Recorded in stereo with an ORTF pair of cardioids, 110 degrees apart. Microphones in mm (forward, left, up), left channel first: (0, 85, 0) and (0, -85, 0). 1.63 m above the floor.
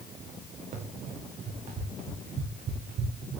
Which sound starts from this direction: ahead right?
Running footsteps, at 0.7 s.